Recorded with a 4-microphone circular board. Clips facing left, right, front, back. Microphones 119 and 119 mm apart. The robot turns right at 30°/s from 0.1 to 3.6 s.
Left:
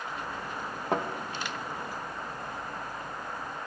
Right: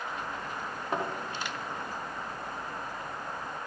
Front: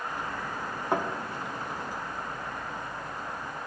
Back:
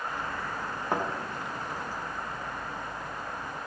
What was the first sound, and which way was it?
A thud, 90° left.